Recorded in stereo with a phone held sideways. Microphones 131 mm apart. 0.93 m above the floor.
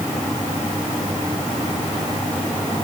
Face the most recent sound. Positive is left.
No sound to turn to.